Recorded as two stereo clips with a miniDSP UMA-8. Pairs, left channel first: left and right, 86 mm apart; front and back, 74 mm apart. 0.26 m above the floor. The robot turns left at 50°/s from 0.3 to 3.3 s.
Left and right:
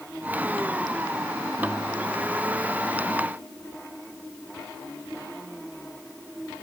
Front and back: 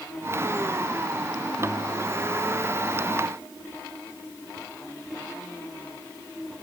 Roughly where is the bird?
No bird in this recording.